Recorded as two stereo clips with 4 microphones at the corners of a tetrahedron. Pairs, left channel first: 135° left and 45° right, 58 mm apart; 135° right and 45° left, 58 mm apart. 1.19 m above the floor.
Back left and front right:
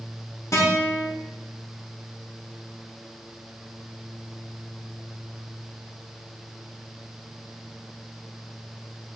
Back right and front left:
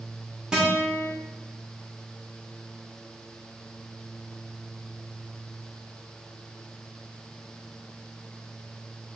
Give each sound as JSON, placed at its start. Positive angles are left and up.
{"t": 0.5, "sound": "a guitar", "azimuth_deg": 120, "distance_m": 1.4}